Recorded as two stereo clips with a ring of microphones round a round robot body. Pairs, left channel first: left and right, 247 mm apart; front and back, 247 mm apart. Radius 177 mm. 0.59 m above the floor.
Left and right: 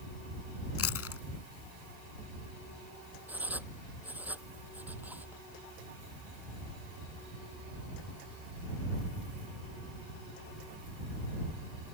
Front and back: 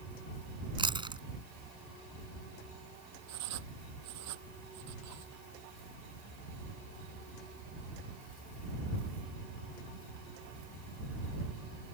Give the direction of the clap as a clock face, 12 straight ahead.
I don't hear a clap.